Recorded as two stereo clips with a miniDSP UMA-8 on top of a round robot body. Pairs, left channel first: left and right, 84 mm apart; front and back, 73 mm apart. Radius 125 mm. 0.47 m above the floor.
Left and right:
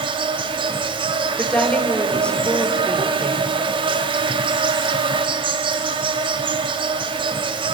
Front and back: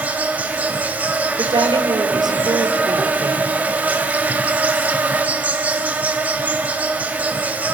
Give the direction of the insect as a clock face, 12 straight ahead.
4 o'clock.